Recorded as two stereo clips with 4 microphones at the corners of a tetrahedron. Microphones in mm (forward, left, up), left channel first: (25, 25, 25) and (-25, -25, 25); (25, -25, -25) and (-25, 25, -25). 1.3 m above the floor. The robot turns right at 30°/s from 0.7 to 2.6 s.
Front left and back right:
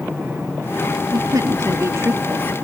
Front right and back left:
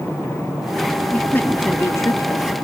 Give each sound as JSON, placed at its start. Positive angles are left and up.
{"t": 1.1, "sound": "a woman speaking", "azimuth_deg": -115}